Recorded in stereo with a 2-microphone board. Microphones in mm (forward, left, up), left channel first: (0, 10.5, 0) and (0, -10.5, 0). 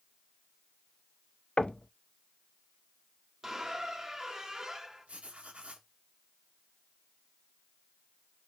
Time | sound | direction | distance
1.6 | knocking | 50° left (ahead or behind) | 0.6 m
3.4 | a squeak | 30° right (ahead or behind) | 2 m
5.1 | writing | 80° right | 2.5 m